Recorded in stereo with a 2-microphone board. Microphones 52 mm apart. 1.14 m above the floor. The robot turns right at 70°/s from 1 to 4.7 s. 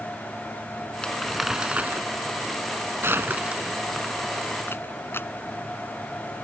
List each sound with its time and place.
1.0 s crumpling: 20° left (ahead or behind); by 5.3 s 50° left (ahead or behind)